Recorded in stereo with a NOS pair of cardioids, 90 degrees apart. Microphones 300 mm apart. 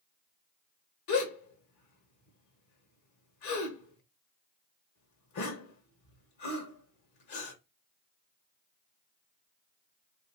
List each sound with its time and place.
1.1 s a gasp: 70° left, 1.3 m